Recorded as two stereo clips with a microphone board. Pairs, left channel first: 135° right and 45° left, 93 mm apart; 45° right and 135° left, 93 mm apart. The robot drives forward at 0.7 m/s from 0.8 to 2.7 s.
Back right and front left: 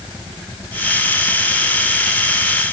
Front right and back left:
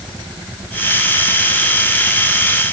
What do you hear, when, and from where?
Only background noise.